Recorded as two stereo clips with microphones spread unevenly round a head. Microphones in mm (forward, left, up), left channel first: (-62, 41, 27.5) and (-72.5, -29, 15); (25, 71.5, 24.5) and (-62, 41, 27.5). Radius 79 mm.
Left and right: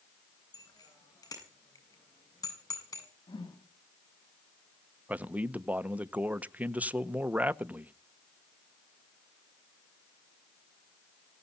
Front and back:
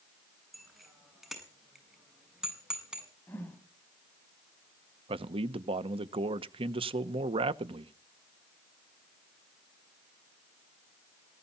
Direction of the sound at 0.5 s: 110° left.